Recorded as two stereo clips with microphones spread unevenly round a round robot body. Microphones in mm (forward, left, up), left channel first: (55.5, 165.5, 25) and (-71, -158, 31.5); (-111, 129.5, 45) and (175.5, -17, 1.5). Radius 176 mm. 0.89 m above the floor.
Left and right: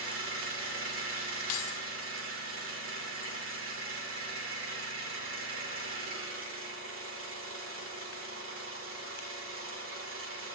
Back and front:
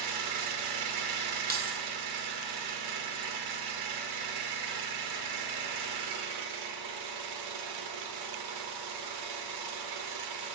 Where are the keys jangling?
35° left, 2 m.